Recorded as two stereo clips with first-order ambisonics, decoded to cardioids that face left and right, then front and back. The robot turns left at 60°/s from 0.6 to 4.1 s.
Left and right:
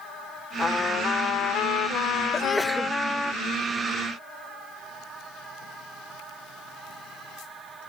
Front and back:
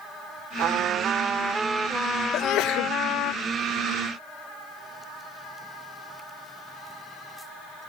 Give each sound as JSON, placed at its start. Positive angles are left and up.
{"t": 0.6, "sound": "a trumpet", "azimuth_deg": 165}
{"t": 2.3, "sound": "a sneeze", "azimuth_deg": 20}